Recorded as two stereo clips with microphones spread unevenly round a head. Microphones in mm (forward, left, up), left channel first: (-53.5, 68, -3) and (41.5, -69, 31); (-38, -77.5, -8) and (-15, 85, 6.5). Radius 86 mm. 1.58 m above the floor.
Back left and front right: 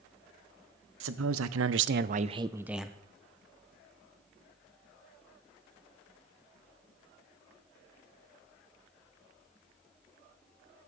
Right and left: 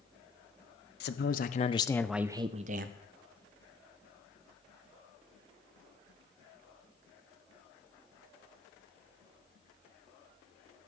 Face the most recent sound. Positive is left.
turn(degrees=40)